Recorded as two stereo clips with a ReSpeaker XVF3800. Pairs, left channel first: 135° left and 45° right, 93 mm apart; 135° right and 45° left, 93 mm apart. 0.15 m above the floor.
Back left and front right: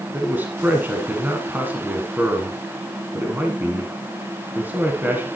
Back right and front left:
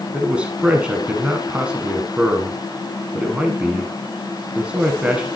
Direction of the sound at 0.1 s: 15° right.